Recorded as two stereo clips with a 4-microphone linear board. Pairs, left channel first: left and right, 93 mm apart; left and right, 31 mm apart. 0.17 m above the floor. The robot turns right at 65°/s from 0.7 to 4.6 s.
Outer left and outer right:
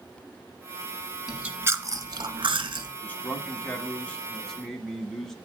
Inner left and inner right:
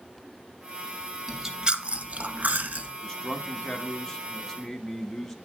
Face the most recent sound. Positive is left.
turn(degrees=5)  # may be behind; listen again after turning